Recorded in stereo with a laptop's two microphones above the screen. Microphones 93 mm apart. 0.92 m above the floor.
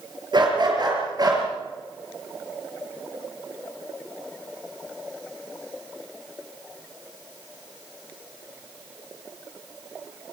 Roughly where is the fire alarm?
I don't hear a fire alarm.